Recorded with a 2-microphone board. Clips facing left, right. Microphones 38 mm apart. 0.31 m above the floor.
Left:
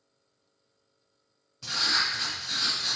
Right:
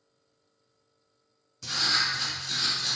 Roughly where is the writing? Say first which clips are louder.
Even; centre.